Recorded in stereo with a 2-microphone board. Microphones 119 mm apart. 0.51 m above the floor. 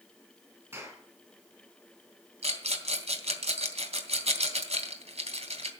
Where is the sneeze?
No sneeze in this recording.